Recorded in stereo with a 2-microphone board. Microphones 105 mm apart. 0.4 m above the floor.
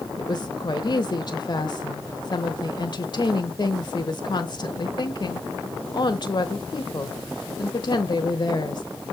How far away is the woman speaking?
About 1.2 m.